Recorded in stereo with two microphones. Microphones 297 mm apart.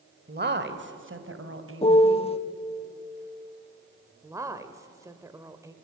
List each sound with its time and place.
0.3 s a woman speaking: 30° right (ahead or behind), 1.2 m; by 2.2 s 50° right (ahead or behind), 2 m
1.8 s a piano: 20° left (ahead or behind), 0.5 m
4.2 s a woman speaking: 10° right (ahead or behind), 1.0 m